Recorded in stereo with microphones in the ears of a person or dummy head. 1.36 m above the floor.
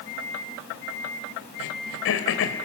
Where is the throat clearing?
70° left (ahead or behind), 2.5 m.